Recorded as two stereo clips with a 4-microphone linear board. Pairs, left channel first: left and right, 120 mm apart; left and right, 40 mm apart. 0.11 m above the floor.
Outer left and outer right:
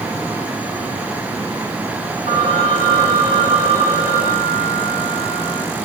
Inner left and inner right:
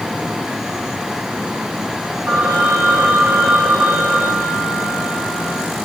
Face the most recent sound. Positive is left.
turn(degrees=-80)